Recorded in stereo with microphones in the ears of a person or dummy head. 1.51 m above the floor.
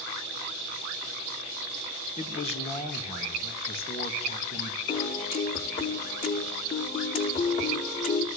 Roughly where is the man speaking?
Left.